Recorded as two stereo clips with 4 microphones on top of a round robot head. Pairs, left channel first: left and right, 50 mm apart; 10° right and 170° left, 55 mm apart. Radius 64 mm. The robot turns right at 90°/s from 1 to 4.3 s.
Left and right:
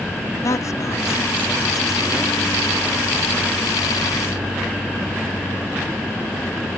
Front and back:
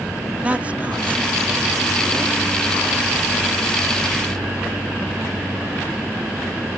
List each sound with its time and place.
0.4 s a woman speaking: 110° left; by 2.4 s 130° right